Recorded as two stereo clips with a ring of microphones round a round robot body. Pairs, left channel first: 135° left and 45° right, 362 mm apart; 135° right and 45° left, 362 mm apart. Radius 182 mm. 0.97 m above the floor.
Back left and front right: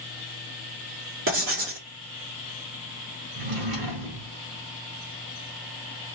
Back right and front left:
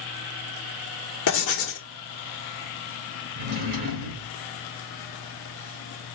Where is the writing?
95° right, 1.3 m.